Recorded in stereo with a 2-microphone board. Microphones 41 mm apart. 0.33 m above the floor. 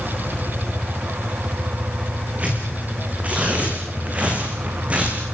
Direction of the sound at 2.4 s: 30° right (ahead or behind).